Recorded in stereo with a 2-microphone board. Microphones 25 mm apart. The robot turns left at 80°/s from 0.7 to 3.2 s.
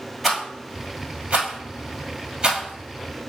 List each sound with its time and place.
0.2 s a rattle: 10° right (ahead or behind), 1.7 m; by 3.3 s 25° left (ahead or behind), 1.7 m